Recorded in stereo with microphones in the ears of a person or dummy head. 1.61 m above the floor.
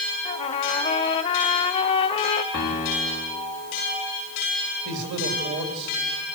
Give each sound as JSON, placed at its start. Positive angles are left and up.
{"t": 0.2, "sound": "a trumpet", "side_deg": 25, "distance_m": 1.0}
{"t": 2.5, "sound": "a piano", "side_deg": 35, "distance_m": 3.5}
{"t": 4.8, "sound": "a man speaking", "side_deg": -65, "distance_m": 3.0}